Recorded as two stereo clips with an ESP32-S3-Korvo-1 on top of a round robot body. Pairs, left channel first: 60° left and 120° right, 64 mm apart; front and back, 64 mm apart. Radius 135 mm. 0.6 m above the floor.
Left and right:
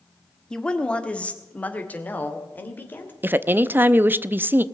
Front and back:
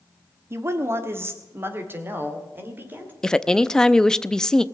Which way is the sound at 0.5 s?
140° left.